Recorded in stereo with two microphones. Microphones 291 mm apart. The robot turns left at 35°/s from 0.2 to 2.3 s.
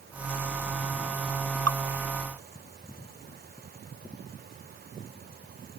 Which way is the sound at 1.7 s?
65° right (ahead or behind).